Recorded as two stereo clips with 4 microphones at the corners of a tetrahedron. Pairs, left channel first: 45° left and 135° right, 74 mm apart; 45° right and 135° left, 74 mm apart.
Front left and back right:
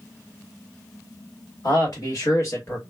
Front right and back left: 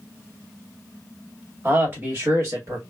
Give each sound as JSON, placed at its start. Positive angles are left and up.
{"t": 1.6, "sound": "a man speaking", "azimuth_deg": 75, "distance_m": 1.7}